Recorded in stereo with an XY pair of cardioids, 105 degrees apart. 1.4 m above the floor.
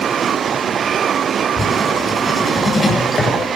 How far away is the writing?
About 7.5 m.